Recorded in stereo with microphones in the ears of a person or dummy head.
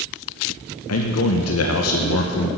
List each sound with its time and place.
0.9 s a man speaking: 80° left, 0.9 m